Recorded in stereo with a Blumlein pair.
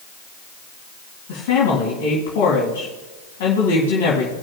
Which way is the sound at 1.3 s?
50° left.